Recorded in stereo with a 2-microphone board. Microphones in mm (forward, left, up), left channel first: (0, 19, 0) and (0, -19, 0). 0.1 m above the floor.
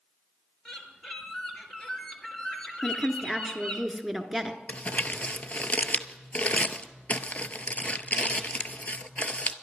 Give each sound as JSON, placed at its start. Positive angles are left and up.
{"t": 0.7, "sound": "a bird", "side_deg": 20, "distance_m": 2.0}
{"t": 2.8, "sound": "a woman speaking", "side_deg": 0, "distance_m": 1.1}
{"t": 4.7, "sound": "crumpling", "side_deg": 40, "distance_m": 0.6}